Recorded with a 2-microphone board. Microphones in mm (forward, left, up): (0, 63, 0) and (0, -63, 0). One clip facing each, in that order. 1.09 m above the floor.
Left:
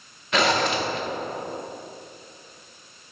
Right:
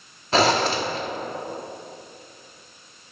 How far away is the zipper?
About 0.7 m.